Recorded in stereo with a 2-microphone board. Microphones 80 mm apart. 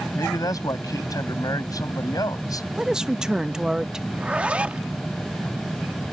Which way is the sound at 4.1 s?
15° right (ahead or behind).